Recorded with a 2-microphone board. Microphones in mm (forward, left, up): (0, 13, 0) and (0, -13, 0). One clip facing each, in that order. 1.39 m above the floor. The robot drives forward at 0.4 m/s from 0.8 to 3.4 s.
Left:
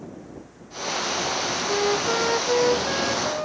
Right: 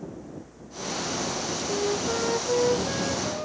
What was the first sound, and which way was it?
A flute, 45° left (ahead or behind).